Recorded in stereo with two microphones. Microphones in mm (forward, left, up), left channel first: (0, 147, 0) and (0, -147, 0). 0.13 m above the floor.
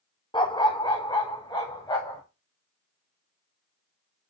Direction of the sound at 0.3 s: 15° left (ahead or behind).